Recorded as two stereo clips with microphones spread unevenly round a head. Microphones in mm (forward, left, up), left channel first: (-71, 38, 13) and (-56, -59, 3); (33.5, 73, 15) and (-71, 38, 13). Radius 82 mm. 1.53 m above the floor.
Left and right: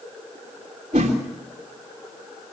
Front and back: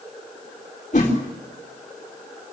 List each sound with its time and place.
0.9 s a whoosh: 30° right, 3 m